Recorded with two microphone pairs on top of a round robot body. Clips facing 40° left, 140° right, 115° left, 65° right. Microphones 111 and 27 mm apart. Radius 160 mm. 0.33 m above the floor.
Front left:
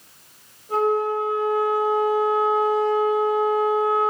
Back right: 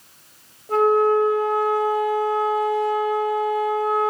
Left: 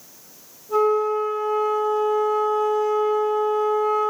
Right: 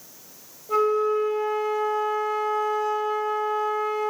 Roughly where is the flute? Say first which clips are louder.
Back right 4 dB, left 2 dB; right.